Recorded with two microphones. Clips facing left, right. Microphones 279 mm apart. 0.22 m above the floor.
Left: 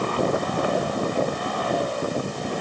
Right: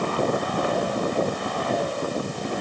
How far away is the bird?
No bird in this recording.